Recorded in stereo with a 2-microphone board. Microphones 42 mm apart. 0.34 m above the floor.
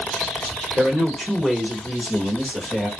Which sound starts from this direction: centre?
A woman speaking, at 0.8 s.